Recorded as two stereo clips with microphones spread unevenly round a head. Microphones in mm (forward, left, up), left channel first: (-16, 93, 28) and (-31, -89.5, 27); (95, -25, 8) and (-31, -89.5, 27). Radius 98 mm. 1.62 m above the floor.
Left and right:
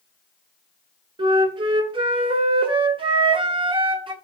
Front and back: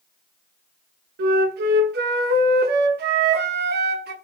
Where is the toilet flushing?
I don't hear a toilet flushing.